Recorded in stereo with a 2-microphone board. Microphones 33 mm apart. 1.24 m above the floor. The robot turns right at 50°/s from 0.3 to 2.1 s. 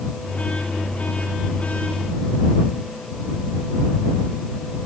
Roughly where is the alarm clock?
No alarm clock in this recording.